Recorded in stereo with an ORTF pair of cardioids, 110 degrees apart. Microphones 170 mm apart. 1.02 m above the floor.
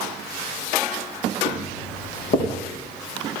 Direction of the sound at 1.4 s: 65° left.